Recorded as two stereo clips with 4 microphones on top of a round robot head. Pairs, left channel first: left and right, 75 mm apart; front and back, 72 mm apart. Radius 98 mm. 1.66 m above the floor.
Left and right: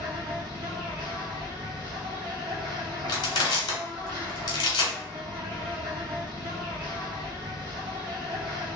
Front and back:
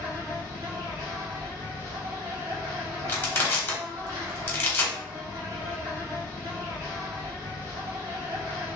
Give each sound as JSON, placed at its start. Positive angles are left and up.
{"t": 0.0, "sound": "an insect", "azimuth_deg": -125, "distance_m": 0.9}
{"t": 3.1, "sound": "crushing", "azimuth_deg": 65, "distance_m": 1.0}